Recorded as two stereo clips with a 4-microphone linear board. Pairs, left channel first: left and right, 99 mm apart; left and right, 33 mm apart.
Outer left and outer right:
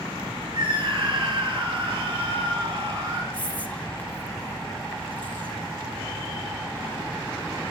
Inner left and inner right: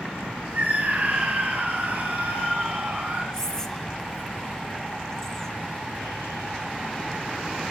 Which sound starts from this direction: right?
A scream, at 0.5 s.